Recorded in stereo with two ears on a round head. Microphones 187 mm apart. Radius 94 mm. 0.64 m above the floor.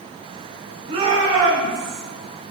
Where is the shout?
30° right (ahead or behind), 9 m; by 2.0 s 35° right (ahead or behind), 10 m.